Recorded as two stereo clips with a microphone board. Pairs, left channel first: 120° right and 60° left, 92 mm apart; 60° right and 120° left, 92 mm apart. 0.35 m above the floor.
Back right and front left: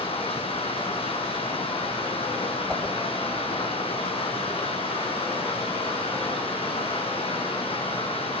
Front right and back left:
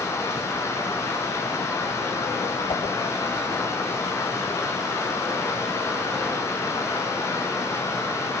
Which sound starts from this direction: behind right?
Running water, at 0.0 s.